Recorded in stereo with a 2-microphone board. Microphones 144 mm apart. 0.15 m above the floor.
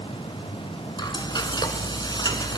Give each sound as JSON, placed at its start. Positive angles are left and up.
{"t": 1.0, "sound": "frying", "side_deg": 30, "distance_m": 0.8}